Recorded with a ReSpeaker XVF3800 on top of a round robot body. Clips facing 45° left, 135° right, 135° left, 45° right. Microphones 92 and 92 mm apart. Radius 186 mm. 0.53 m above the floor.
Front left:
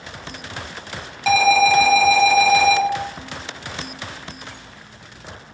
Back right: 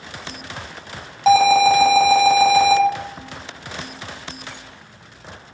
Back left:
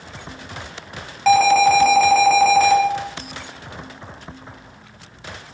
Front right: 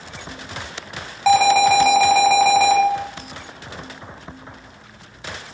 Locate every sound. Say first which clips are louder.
1.3 s an alarm: back right 3 dB, back left 1 dB; 125° right, 1.0 m